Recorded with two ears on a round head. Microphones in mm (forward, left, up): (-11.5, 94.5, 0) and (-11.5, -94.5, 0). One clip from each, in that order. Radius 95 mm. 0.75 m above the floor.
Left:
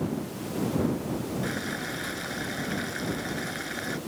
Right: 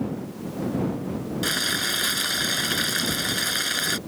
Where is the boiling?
85° right.